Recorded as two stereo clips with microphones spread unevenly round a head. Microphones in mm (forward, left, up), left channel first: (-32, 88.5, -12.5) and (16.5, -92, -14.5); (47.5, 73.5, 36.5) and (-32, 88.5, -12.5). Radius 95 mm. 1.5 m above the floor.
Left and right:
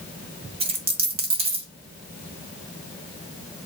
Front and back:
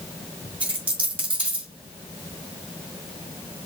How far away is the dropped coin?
About 1.8 m.